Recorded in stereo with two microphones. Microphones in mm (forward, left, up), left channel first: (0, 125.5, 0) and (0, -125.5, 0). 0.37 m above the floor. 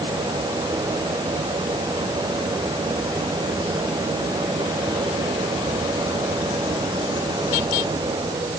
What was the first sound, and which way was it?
Only background noise.